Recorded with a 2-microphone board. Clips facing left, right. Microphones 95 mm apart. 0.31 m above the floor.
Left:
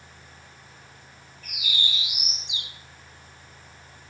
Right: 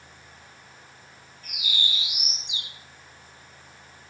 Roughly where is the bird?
Right.